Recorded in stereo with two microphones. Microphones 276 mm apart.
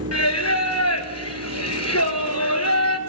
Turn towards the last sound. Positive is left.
turn(degrees=65)  # may be behind; listen again after turning